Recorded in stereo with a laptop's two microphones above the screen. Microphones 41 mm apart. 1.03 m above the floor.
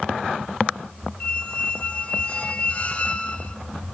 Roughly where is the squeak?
Left.